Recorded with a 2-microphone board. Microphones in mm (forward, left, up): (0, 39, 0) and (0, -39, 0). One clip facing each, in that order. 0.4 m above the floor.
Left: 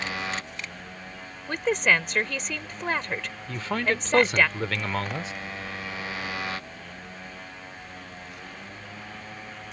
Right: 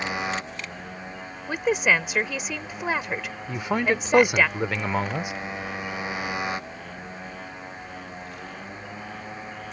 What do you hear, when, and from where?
0.0 s a motorcycle: 20° right (ahead or behind)
1.5 s a woman speaking: 10° right (ahead or behind)
3.5 s a man speaking: 15° right (ahead or behind)